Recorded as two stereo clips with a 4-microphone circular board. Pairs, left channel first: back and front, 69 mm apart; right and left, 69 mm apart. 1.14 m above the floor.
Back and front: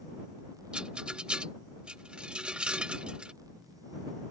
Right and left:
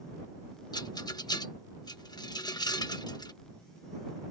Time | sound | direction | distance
0.7 | a rattle | 75° right | ?